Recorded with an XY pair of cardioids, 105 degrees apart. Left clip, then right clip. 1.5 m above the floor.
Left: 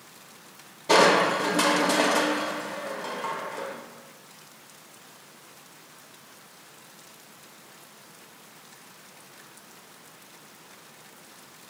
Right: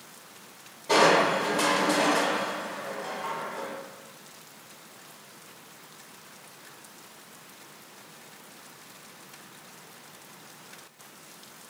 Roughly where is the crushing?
Ahead left.